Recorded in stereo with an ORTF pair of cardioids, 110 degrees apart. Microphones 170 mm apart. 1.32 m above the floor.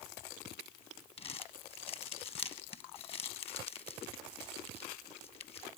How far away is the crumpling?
About 1.3 m.